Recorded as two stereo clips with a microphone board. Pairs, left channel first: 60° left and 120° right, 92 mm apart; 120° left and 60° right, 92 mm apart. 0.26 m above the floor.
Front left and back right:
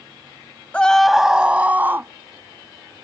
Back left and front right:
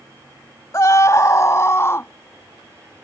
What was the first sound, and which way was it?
A scream, 125° left.